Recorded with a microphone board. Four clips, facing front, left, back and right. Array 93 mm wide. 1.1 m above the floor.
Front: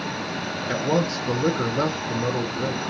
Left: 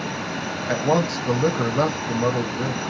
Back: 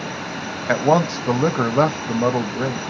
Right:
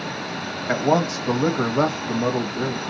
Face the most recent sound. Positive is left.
turn(degrees=-170)